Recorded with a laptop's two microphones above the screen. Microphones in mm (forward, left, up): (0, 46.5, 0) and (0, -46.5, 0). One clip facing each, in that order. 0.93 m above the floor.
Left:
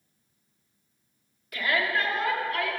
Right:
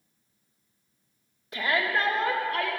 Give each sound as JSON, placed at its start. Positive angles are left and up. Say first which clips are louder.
{"t": 1.5, "sound": "a shout", "louder": "even", "side_deg": -25, "distance_m": 1.2}